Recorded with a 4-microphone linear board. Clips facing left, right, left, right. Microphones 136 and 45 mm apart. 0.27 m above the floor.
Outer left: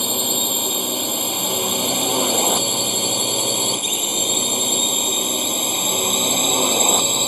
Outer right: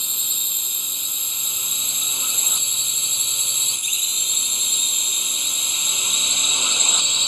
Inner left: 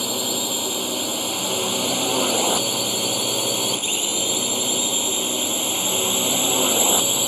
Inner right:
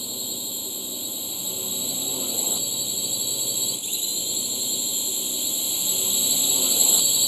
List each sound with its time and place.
0.0 s a drone: 80° left; by 7.3 s 55° left (ahead or behind)